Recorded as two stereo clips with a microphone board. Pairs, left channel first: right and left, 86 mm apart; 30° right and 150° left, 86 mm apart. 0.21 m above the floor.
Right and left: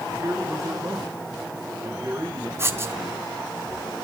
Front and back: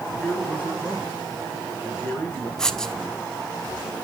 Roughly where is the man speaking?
Ahead left.